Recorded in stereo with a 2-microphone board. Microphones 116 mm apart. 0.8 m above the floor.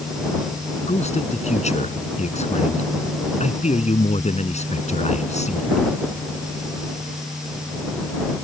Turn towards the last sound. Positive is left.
turn(degrees=80)